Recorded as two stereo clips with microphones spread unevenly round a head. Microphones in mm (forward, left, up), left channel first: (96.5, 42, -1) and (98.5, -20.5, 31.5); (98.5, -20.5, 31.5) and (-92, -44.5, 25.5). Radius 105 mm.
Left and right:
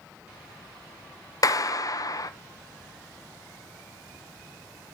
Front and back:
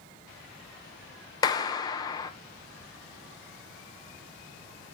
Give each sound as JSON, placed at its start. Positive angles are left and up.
{"t": 1.4, "sound": "a clap", "azimuth_deg": 80, "distance_m": 0.9}